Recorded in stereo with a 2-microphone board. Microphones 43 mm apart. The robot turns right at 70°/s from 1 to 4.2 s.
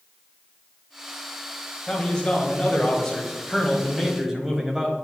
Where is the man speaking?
20° left (ahead or behind), 1.1 m; by 4.9 s 15° right (ahead or behind), 1.1 m.